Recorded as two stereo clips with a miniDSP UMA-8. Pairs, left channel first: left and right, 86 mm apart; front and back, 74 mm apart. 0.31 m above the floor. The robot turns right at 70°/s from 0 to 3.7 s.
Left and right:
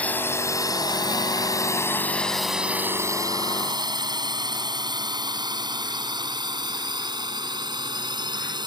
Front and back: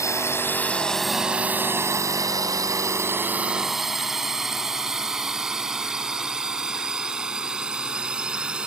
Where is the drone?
20° left; by 8.7 s 105° right.